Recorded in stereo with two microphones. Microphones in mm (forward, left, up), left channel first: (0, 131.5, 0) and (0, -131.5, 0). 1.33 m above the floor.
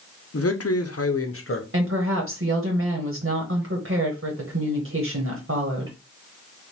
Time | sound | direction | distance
0.3 | a man speaking | 60° left (ahead or behind) | 0.8 m
1.7 | a woman speaking | 55° right (ahead or behind) | 1.4 m